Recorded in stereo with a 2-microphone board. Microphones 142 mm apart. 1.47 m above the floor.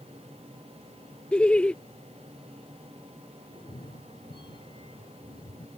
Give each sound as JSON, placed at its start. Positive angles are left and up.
{"t": 1.3, "sound": "laughter", "side_deg": 5}
{"t": 3.5, "sound": "a cat meowing", "side_deg": 35}